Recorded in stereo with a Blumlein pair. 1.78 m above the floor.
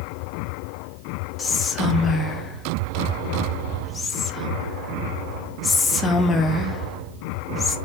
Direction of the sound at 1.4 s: 15° left.